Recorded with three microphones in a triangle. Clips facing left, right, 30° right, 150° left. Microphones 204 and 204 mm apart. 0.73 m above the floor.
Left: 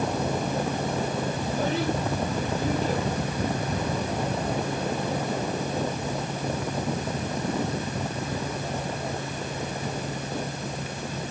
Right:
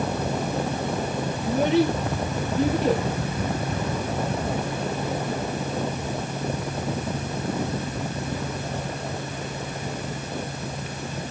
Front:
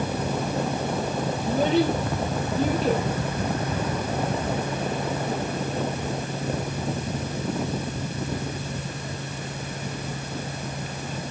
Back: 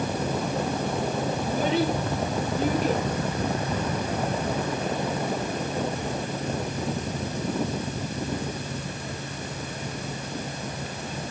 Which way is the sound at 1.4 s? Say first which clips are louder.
Right 9 dB, front 4 dB; 85° right.